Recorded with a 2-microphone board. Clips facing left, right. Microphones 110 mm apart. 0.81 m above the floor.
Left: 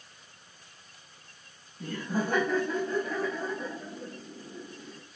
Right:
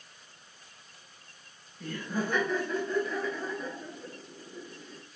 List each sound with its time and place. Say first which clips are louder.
1.8 s laughter: left 2 dB; 40° left (ahead or behind), 1.2 m; by 5.0 s 65° left (ahead or behind), 2.5 m